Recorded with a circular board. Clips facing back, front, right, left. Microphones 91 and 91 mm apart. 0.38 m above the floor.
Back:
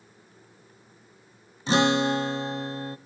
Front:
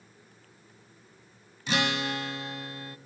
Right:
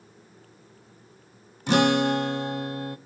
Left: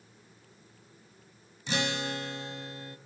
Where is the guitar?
120° right, 0.6 m.